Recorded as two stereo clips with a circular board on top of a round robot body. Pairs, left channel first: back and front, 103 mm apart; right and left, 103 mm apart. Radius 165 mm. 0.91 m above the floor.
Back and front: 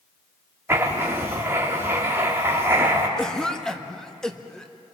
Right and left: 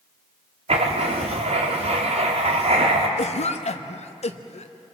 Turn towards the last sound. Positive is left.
turn(degrees=-95)